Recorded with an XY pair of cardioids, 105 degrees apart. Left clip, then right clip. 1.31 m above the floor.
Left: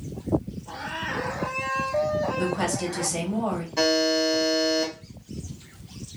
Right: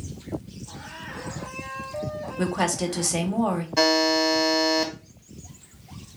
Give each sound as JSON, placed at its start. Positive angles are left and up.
{"t": 2.4, "sound": "a woman speaking", "azimuth_deg": -35, "distance_m": 0.8}
{"t": 3.8, "sound": "a buzzer", "azimuth_deg": -40, "distance_m": 1.1}